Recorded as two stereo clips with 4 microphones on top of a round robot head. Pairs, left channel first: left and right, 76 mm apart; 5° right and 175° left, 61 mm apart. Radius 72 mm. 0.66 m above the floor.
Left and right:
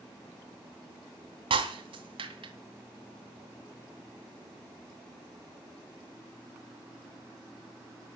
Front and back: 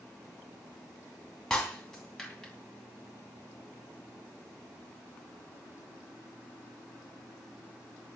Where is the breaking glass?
90° right, 2.5 m.